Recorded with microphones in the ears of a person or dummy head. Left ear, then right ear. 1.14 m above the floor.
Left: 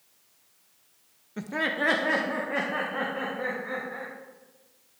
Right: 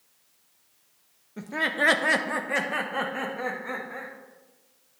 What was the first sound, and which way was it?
Laughter, 15° left (ahead or behind).